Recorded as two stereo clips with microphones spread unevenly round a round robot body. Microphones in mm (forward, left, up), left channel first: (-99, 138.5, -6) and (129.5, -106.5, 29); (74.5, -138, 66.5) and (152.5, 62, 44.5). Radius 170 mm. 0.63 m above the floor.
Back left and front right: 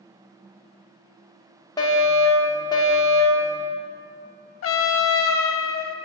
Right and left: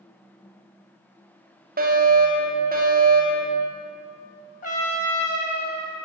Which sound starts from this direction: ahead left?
A fire alarm, at 1.8 s.